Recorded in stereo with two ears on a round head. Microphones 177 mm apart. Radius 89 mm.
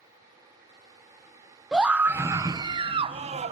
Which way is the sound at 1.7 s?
5° right (ahead or behind).